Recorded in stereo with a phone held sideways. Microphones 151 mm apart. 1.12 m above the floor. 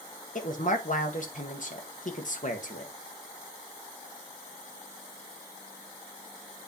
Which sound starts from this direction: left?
A woman speaking, at 0.3 s.